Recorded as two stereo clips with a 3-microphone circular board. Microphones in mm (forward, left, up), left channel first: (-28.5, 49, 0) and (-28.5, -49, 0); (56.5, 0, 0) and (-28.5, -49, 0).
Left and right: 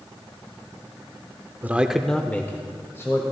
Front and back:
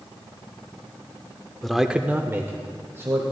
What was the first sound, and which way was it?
A man speaking, 55° right.